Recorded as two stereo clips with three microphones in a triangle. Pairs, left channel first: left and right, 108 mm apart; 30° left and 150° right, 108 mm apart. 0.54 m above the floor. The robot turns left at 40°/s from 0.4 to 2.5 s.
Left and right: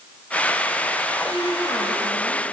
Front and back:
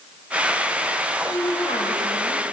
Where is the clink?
No clink in this recording.